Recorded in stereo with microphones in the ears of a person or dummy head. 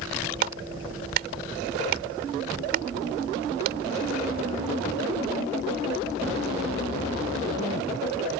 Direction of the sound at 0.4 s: 65° right (ahead or behind).